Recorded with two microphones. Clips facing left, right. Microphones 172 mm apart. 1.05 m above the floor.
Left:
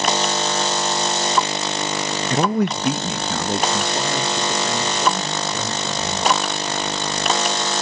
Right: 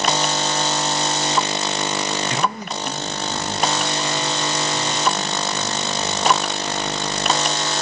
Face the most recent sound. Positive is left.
turn(degrees=50)  # may be behind; listen again after turning